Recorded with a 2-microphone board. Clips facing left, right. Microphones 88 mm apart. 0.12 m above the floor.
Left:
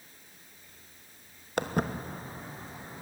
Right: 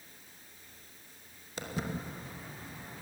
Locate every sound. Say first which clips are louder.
1.6 s footsteps: left 7 dB; 60° left (ahead or behind), 1.7 m; by 3.0 s 20° left (ahead or behind), 3 m